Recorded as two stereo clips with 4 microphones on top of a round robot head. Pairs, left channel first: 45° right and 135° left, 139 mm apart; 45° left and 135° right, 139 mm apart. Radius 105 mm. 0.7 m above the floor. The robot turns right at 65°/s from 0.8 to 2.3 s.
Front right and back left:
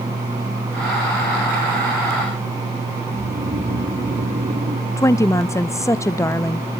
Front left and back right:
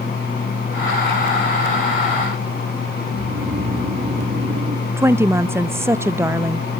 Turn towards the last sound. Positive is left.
turn(degrees=-85)